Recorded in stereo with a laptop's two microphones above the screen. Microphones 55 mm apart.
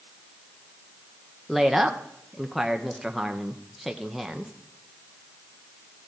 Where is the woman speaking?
Centre (ahead or behind), 0.6 m.